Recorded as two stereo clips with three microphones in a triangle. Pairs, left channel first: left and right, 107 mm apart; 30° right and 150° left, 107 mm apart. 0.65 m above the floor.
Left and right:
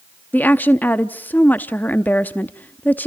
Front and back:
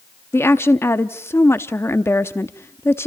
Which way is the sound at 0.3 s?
25° left.